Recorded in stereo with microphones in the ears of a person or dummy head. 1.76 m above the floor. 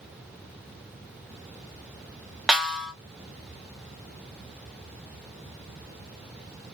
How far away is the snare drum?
About 0.5 m.